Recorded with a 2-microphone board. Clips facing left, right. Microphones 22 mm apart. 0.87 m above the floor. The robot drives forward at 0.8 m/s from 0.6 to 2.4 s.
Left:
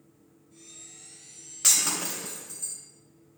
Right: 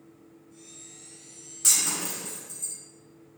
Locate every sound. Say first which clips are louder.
1.6 s breaking glass: left 1 dB; 40° left (ahead or behind), 1.8 m; by 2.8 s 30° left (ahead or behind), 2.5 m